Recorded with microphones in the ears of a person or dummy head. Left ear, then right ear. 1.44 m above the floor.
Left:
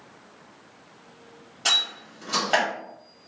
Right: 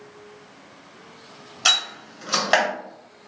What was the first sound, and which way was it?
A door slam, 25° right (ahead or behind).